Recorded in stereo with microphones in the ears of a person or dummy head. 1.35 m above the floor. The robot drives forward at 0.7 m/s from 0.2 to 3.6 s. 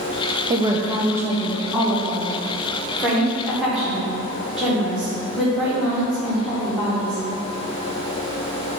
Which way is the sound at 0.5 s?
25° right (ahead or behind).